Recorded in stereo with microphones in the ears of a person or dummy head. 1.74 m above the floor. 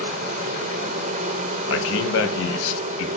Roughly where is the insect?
Right.